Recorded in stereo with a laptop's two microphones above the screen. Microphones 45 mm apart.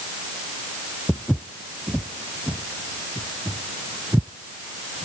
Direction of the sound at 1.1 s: 10° right (ahead or behind).